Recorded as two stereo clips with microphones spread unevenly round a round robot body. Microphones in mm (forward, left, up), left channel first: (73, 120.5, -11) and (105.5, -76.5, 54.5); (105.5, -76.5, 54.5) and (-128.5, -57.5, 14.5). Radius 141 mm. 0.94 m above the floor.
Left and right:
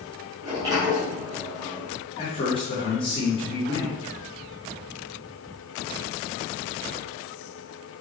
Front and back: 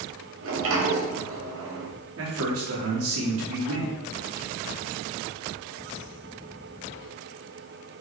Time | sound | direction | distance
0.4 | a sliding door | 160° right | 3 m
2.2 | a man speaking | 160° left | 2.5 m